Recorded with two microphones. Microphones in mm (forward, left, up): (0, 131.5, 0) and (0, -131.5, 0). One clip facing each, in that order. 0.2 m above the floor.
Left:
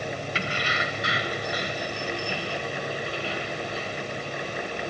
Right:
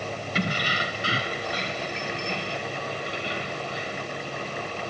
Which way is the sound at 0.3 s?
45° right (ahead or behind).